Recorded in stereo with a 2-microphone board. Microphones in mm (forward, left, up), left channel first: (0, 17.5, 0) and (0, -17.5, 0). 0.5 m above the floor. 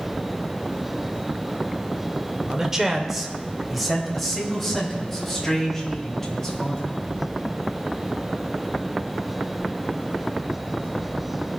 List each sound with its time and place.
2.5 s a man speaking: 25° right (ahead or behind), 1.2 m; by 6.9 s 10° left (ahead or behind), 4 m